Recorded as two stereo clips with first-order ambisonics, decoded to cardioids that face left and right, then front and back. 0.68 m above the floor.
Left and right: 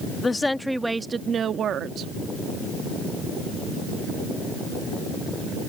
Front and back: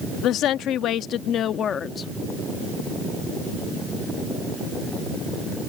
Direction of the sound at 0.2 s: 20° left.